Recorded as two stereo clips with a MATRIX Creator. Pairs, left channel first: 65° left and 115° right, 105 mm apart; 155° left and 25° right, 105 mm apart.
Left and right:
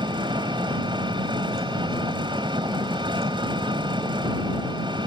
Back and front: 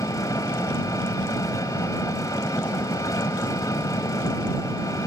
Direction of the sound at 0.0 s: 150° right.